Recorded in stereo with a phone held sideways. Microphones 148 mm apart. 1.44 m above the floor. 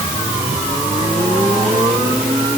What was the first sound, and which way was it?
Only background noise.